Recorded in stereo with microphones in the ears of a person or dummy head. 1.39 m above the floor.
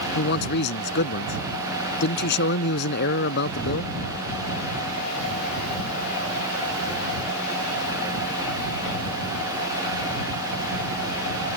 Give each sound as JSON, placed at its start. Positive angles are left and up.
{"t": 0.1, "sound": "a man speaking", "side_deg": 60}